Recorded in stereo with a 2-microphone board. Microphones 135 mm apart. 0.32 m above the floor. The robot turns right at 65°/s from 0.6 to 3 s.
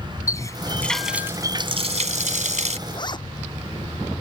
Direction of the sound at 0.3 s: 155° left.